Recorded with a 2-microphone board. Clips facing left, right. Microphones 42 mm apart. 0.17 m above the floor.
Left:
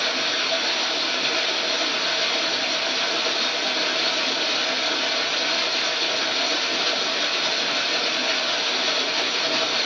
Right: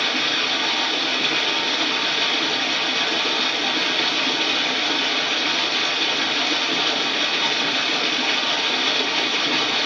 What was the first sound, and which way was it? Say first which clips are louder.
Running water: right 2 dB; 50° right (ahead or behind).